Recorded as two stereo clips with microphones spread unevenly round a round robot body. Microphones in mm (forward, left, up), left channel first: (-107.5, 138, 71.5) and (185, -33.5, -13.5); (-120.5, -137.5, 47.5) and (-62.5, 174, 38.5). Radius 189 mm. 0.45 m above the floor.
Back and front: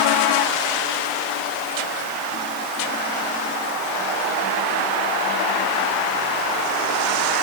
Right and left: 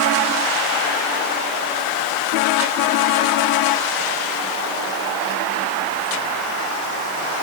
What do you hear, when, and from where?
Only background noise.